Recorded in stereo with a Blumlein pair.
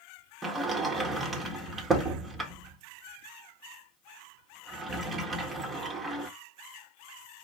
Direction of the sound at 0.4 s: 15° right.